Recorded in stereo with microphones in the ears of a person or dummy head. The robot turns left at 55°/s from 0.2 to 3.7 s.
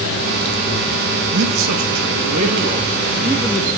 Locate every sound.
1.3 s a man speaking: 65° right, 3.5 m; by 3.7 s 165° left, 3.5 m